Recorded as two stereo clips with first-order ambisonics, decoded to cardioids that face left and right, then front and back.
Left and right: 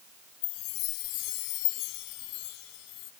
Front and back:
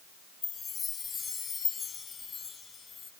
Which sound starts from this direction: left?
A chime, at 0.4 s.